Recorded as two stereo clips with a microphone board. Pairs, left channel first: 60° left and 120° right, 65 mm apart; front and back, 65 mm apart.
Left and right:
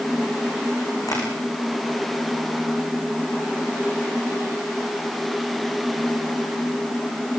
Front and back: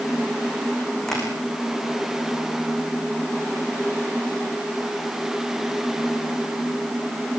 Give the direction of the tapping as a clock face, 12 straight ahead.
9 o'clock.